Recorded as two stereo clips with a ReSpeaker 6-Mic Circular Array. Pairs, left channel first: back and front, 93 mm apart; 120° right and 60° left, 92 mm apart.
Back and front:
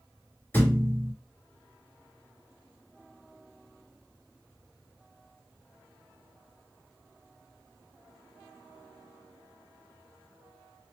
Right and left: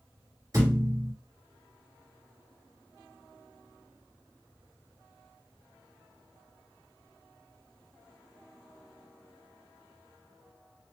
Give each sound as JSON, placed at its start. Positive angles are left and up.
{"t": 0.5, "sound": "a thud", "azimuth_deg": 110, "distance_m": 2.0}